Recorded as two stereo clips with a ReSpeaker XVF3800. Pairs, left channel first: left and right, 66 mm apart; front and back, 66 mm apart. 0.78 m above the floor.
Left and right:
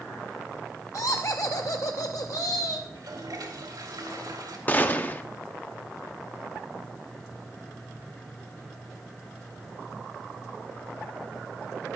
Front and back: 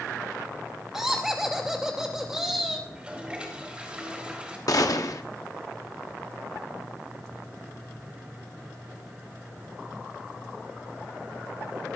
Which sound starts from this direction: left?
Laughter, at 0.9 s.